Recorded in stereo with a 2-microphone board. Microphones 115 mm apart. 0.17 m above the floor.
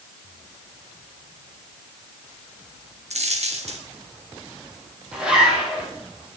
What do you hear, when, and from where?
3.1 s a dropped coin: 70° right (ahead or behind), 3 m
5.1 s a zipper: 10° right (ahead or behind), 6.5 m